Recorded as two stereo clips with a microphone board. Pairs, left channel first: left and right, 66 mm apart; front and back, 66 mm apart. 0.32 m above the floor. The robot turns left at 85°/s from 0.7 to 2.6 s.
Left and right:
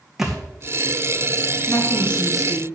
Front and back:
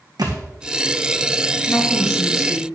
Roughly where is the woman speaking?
Ahead left.